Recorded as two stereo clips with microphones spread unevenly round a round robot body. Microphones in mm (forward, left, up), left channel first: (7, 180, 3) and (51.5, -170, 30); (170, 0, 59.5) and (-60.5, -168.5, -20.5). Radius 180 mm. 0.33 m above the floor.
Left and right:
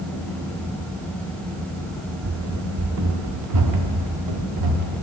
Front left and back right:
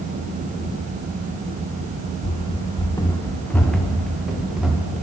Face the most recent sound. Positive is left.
turn(degrees=-55)